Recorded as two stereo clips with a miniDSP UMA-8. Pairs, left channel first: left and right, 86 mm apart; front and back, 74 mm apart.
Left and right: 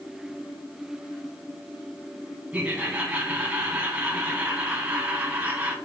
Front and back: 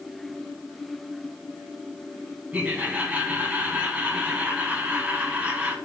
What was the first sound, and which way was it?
Laughter, 140° right.